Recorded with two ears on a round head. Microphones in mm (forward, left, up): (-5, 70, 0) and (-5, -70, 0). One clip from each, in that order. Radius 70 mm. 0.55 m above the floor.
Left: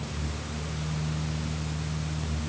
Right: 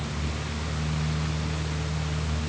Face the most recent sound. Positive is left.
No sound to turn to.